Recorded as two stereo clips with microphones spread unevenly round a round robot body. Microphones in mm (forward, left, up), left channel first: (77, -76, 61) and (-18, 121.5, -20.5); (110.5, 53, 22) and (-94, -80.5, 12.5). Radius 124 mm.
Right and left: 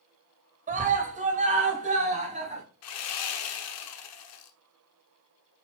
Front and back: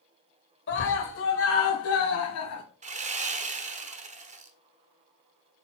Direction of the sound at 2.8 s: 90° right.